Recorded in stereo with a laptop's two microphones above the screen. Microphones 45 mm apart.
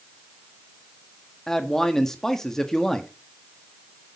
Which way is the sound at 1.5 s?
10° left (ahead or behind).